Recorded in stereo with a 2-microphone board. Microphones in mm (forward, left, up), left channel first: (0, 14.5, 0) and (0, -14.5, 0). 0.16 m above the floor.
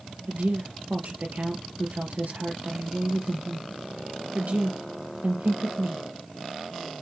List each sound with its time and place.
0.3 s a woman speaking: 65° right (ahead or behind), 3 m